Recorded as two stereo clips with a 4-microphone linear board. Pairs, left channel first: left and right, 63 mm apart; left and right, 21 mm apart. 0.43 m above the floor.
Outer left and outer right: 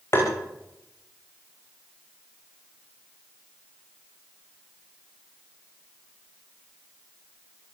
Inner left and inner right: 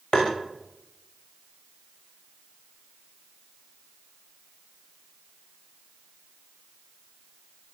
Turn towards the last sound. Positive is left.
turn(degrees=45)  # may be behind; listen again after turning